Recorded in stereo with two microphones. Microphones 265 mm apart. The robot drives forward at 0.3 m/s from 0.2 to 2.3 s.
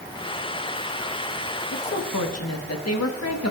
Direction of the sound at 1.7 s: 65° left (ahead or behind).